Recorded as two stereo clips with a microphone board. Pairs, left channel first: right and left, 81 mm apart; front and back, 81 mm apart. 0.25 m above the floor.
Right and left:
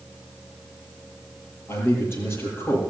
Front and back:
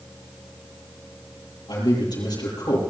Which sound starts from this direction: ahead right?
A man speaking, at 1.7 s.